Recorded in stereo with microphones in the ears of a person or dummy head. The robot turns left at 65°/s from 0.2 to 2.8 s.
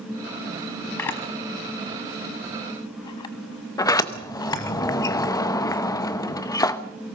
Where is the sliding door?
20° left (ahead or behind), 0.9 m.